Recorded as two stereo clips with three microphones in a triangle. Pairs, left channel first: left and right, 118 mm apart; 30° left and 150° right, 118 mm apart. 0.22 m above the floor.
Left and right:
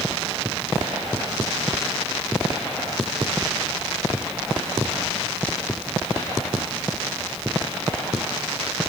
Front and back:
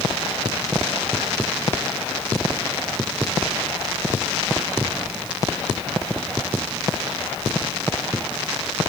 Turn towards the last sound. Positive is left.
No sound to turn to.